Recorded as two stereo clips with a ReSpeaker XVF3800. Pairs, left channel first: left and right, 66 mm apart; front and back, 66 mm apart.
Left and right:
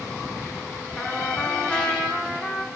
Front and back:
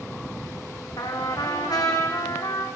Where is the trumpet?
15° left, 3 m.